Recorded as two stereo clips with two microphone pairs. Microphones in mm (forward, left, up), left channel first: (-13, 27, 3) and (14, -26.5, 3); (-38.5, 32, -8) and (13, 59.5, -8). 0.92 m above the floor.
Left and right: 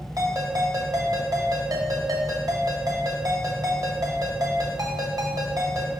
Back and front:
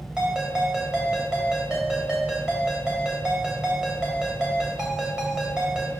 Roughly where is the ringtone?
Ahead right.